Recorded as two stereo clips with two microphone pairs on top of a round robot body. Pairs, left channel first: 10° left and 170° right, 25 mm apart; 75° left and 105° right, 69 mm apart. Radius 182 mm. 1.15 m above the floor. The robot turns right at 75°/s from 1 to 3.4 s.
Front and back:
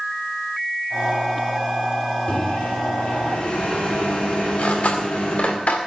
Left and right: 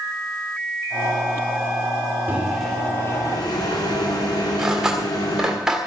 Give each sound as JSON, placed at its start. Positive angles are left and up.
{"t": 2.3, "sound": "a microwave", "azimuth_deg": -40, "distance_m": 4.0}
{"t": 4.6, "sound": "cutlery clinking", "azimuth_deg": -20, "distance_m": 2.0}